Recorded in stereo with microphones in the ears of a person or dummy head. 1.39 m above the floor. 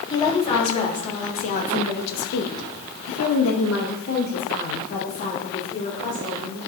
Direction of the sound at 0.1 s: 25° left (ahead or behind).